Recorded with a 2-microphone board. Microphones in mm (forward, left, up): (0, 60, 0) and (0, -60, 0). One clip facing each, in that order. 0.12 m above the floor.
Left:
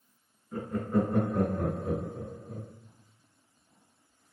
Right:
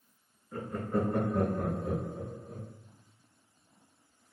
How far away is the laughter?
About 1.8 m.